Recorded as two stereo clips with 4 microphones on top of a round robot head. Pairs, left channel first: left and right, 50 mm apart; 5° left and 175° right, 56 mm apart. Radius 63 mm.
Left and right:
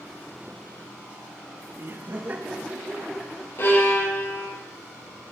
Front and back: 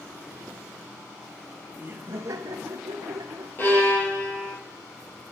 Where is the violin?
55° left, 9 m.